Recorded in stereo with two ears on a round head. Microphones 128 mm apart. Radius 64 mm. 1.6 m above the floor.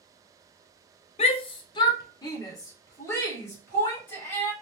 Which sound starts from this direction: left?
A shout, at 1.2 s.